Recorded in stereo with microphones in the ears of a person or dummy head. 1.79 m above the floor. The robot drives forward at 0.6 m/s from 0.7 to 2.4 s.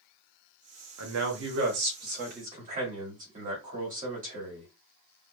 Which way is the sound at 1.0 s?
85° right.